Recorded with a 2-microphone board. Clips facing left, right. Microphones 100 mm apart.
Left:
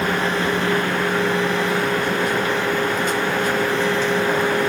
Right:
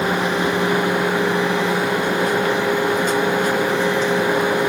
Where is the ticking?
No ticking in this recording.